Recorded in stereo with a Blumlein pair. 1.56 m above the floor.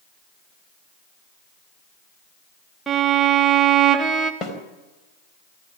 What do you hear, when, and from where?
2.9 s a violin: 5° right, 1.9 m
4.4 s a snare drum: 25° left, 4.5 m